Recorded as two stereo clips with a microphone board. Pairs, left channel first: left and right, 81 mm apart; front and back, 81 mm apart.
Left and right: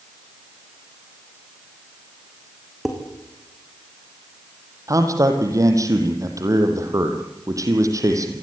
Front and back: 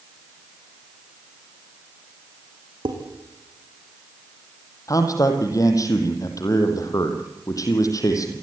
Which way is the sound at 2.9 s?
175° right.